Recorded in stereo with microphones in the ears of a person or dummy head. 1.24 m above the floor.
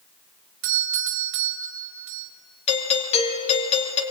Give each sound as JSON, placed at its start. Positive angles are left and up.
{"t": 0.6, "sound": "a doorbell", "side_deg": -65, "distance_m": 1.4}
{"t": 2.7, "sound": "a doorbell", "side_deg": 35, "distance_m": 3.0}